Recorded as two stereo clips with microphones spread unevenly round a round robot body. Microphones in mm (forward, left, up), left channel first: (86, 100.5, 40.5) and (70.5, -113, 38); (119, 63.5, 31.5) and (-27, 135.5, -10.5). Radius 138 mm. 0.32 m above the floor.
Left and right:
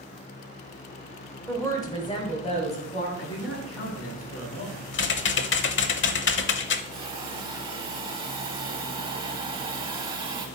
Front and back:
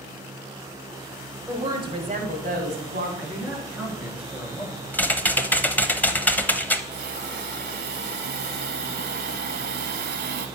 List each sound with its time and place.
1.5 s a woman speaking: 165° left, 1.0 m; by 3.1 s 145° left, 2.5 m
3.2 s a man speaking: 70° left, 5.5 m
4.9 s typing on a keyboard: 60° left, 0.8 m
6.9 s a hiss: 165° right, 0.5 m